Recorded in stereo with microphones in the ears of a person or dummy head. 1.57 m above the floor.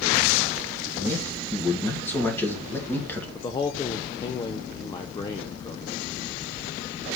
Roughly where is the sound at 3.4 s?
Left.